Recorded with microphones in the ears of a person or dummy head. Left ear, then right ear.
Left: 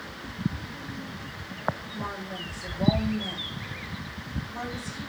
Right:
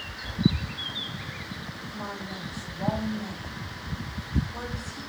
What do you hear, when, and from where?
1.9 s a woman speaking: 5° left (ahead or behind), 4 m